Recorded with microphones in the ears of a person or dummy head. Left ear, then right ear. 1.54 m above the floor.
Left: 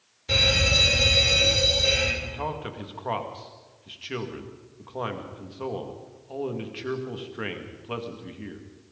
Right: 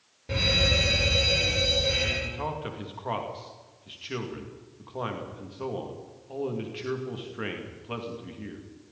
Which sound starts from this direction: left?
An alarm, at 0.3 s.